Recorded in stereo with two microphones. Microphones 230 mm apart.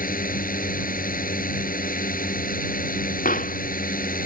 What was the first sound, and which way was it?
A drone, 35° left (ahead or behind).